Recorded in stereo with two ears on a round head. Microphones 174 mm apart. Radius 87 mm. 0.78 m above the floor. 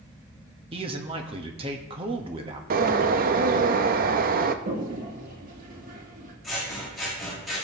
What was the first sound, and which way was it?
A man speaking, 25° right (ahead or behind).